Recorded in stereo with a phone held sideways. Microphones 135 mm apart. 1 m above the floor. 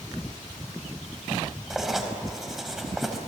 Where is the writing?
Centre (ahead or behind), 4 m.